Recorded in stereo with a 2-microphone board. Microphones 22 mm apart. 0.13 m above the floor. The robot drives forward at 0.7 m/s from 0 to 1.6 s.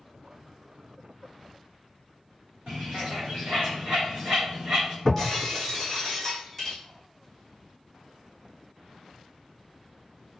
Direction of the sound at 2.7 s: 50° right (ahead or behind).